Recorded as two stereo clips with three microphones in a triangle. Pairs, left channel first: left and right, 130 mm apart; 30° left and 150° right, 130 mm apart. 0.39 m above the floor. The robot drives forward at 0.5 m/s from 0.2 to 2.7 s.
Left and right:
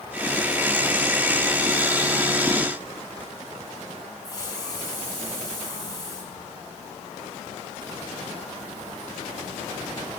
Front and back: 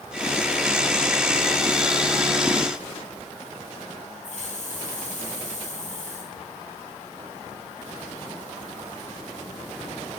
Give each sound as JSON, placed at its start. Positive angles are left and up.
{"t": 4.2, "sound": "a hiss", "azimuth_deg": 35, "distance_m": 3.5}